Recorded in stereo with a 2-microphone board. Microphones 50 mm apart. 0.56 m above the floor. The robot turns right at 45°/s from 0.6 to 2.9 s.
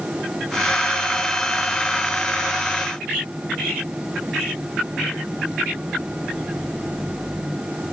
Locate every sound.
Only background noise.